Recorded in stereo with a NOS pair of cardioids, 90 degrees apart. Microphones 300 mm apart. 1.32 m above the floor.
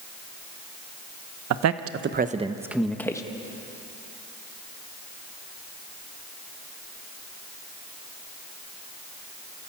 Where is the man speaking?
65° right, 1.2 m; by 3.2 s 10° left, 1.6 m.